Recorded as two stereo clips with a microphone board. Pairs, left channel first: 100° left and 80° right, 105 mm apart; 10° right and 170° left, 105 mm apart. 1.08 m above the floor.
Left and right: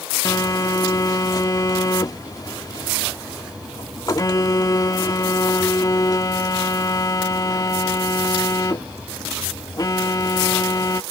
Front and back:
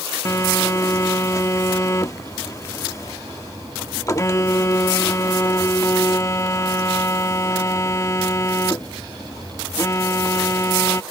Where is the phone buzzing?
45° left.